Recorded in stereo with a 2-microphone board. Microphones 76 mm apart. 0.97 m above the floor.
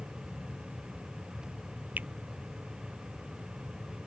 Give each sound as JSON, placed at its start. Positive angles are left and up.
{"t": 2.0, "sound": "a finger snap", "side_deg": -25}